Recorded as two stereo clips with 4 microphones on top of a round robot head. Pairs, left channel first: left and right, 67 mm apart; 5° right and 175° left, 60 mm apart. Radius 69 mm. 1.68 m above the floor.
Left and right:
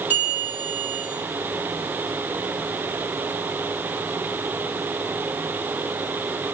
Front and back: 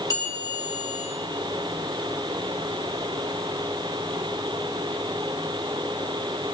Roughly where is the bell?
Ahead.